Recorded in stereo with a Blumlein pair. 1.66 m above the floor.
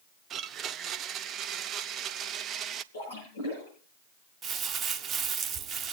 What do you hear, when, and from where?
0.3 s a blender: 30° right, 0.6 m
2.9 s a splash: 70° left, 8.5 m
4.4 s crumpling: 25° right, 0.9 m